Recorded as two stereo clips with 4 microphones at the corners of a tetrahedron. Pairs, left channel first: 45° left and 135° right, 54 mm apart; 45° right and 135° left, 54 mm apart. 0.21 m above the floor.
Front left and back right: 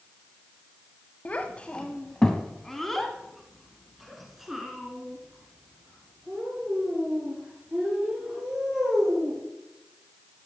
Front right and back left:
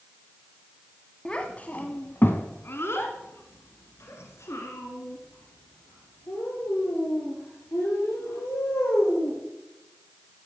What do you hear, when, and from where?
1.2 s a child speaking: 10° left, 0.9 m; by 9.4 s 60° right, 4.5 m